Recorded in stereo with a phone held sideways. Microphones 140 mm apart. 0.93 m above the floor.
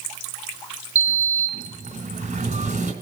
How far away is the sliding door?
About 3 m.